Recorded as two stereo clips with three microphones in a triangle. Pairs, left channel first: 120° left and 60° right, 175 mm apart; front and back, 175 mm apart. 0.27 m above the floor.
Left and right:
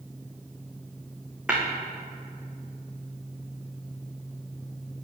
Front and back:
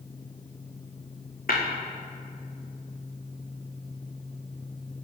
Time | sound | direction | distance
1.5 | tapping | 25° left | 3 m